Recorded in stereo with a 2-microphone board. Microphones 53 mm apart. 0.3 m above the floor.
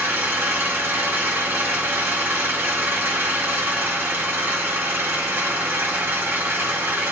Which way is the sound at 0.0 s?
40° right (ahead or behind).